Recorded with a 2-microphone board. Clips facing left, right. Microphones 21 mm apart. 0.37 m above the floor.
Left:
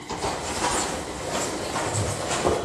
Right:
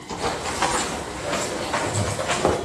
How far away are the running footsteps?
About 5 m.